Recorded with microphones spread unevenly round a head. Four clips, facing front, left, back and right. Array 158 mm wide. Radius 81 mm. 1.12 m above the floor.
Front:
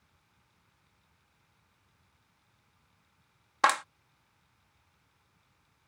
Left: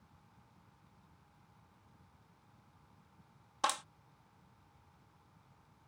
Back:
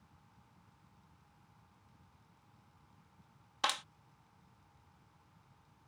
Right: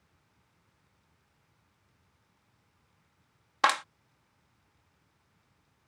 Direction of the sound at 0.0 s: 130° left.